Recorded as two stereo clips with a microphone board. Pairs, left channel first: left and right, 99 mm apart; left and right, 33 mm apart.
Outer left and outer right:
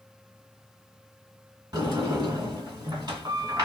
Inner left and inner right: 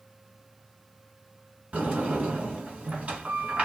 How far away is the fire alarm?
No fire alarm in this recording.